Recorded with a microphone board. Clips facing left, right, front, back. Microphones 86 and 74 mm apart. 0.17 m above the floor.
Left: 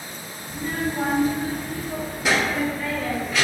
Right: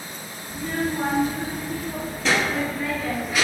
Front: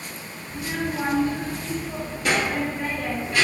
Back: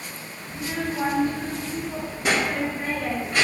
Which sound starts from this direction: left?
A child speaking, at 0.5 s.